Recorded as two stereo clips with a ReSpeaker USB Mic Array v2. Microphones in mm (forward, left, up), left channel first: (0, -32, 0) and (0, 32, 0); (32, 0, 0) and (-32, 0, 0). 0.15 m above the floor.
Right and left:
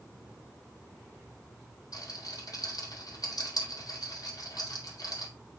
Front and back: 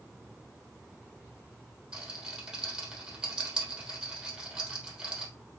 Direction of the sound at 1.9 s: 100° right.